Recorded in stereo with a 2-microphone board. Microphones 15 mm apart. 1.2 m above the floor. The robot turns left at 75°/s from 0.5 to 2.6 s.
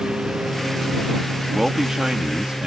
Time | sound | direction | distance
0.0 | a lawn mower | 70° right (ahead or behind) | ?
1.5 | a man speaking | 15° right | ?